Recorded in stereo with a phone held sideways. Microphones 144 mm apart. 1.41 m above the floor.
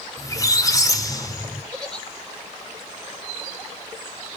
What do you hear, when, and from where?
0.2 s a squeak: 25° left (ahead or behind), 1.1 m
1.7 s a giggle: 5° left (ahead or behind), 3 m